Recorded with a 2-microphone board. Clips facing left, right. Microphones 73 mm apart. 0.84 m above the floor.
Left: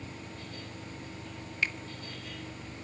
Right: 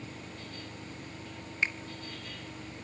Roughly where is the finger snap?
Right.